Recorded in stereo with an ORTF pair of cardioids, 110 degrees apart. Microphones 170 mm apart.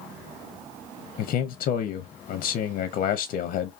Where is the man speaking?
60° left, 0.5 m.